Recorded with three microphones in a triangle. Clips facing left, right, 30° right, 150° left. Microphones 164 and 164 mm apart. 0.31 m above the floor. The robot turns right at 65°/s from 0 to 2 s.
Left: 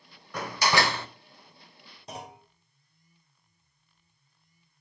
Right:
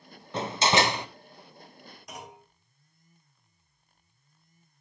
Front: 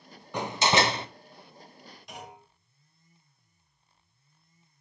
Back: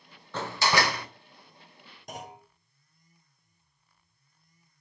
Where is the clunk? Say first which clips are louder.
Left 4 dB, back 4 dB; 135° left, 1.8 m.